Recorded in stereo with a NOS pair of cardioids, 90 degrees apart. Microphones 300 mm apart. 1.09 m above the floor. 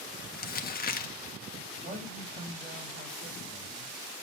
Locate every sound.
0.3 s crumpling: 30° left, 1.6 m
1.8 s a man speaking: 40° right, 4.5 m